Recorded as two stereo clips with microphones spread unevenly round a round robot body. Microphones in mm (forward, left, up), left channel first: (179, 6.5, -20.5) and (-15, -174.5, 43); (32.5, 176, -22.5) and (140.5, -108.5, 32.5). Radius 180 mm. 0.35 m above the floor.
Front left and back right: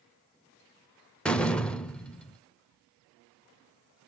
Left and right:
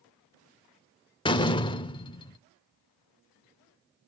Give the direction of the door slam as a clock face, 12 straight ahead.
9 o'clock.